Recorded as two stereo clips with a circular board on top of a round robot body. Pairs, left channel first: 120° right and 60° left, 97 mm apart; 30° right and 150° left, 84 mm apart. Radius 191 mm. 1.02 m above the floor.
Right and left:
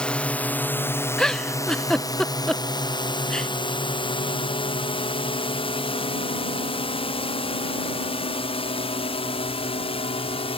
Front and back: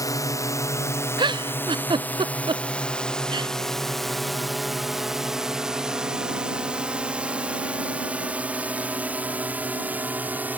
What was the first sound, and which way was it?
A drone, 45° right.